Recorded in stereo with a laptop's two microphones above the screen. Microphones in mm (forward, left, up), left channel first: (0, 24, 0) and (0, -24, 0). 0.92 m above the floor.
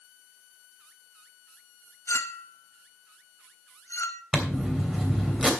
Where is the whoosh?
I don't hear a whoosh.